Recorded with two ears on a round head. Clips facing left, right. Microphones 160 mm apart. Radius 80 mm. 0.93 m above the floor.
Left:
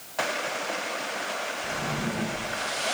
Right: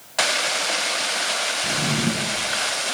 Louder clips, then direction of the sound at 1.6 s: Right 8 dB; 40° right (ahead or behind).